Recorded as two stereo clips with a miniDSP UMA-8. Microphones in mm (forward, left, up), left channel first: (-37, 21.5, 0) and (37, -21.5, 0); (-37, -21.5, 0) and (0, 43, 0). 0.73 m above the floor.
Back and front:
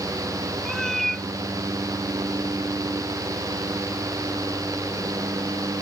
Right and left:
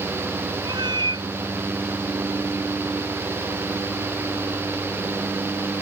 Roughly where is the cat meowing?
Ahead left.